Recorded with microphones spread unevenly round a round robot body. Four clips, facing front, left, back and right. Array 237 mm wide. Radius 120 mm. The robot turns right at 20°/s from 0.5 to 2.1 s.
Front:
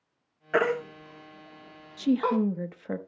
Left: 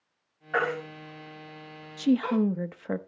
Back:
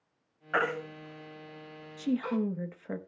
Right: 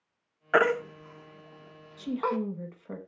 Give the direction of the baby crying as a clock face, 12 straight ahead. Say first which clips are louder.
Right 5 dB, front 5 dB; 2 o'clock.